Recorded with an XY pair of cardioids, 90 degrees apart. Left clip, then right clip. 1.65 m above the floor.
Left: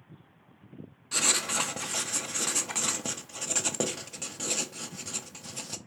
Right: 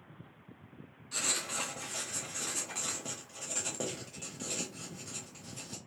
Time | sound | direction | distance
1.1 | writing | 70° left | 0.6 m